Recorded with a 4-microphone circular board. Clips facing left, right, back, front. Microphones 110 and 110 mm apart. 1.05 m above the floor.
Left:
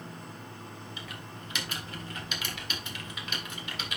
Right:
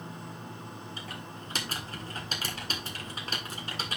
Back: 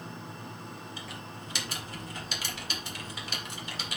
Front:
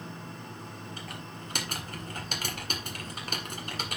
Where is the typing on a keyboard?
40° right, 1.8 m.